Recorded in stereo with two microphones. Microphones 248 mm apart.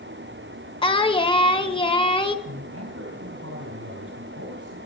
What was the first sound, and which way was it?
Singing, 20° left (ahead or behind).